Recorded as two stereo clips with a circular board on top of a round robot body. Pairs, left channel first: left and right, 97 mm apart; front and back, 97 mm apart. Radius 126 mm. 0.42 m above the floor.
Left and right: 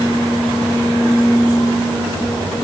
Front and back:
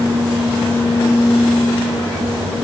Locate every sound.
Only background noise.